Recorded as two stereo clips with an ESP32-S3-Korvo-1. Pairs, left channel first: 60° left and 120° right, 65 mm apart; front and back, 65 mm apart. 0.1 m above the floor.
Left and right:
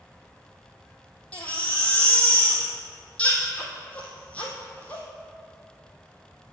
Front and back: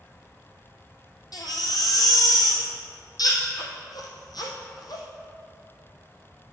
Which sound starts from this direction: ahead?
A baby crying, at 1.3 s.